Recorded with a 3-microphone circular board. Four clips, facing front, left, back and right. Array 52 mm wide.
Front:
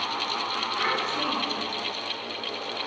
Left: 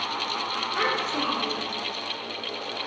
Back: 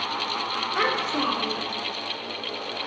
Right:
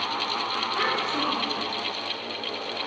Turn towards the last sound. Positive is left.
turn(degrees=175)